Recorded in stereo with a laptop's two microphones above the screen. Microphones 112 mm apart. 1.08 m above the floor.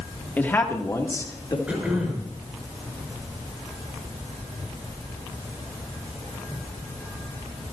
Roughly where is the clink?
No clink in this recording.